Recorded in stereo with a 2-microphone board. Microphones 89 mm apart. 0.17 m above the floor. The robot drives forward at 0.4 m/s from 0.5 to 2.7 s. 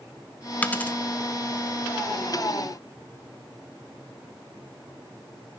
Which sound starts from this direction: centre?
A dropped coin, at 0.6 s.